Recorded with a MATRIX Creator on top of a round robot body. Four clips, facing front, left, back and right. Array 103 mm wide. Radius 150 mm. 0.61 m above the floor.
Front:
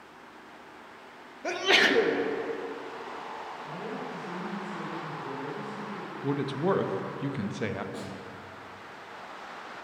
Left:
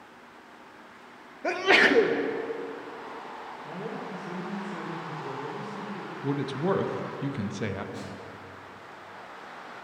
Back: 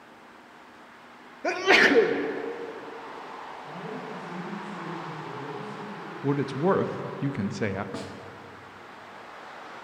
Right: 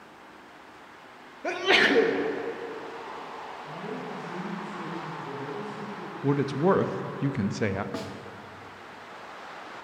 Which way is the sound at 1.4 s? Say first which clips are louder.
Left 1 dB, back 4 dB; 155° left.